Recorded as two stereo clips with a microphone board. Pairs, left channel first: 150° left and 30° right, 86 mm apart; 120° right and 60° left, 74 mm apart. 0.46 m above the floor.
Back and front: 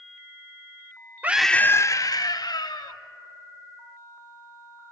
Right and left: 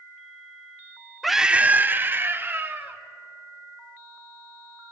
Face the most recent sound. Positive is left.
turn(degrees=120)